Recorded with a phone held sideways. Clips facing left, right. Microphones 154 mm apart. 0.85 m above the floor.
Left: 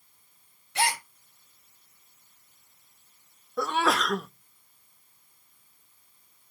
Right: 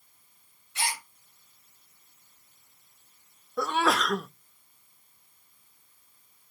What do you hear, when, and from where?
0.8 s a gasp: 65° left (ahead or behind), 1.2 m
3.6 s a sneeze: centre (ahead or behind), 0.7 m